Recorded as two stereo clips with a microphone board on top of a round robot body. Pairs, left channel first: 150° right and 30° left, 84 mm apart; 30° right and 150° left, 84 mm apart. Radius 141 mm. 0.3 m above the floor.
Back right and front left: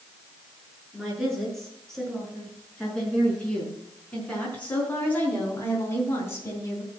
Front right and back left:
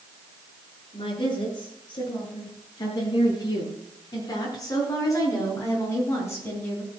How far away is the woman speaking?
About 7 m.